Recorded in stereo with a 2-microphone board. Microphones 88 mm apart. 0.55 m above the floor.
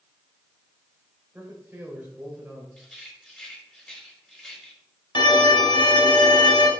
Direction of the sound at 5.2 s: 60° left (ahead or behind).